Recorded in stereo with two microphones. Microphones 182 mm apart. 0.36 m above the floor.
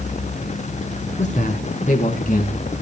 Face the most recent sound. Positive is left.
turn(degrees=50)  # may be behind; listen again after turning